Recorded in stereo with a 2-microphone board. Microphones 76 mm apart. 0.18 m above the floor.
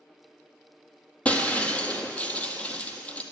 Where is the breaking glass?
20° left (ahead or behind), 0.7 m.